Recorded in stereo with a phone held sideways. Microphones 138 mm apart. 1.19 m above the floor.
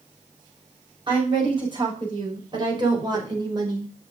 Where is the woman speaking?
35° right (ahead or behind), 6 m; by 3.9 s 30° right (ahead or behind), 3.5 m.